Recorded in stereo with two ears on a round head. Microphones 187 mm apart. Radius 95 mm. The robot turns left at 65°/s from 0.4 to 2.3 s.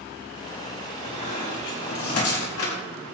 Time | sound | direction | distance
1.0 | a squeak | 25° left (ahead or behind) | 4 m